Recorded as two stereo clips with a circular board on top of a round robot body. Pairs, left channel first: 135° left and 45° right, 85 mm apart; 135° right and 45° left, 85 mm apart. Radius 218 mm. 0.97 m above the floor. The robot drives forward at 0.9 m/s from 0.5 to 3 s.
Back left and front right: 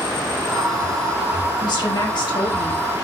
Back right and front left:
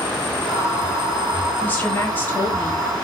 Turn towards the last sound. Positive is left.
turn(degrees=160)